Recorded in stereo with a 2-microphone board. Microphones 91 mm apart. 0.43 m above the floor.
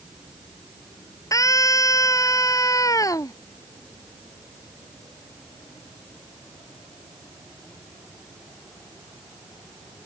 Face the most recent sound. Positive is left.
turn(degrees=40)  # may be behind; listen again after turning